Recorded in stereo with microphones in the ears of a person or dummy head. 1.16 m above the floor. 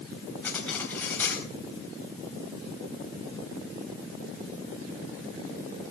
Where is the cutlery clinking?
10° left (ahead or behind), 3 m.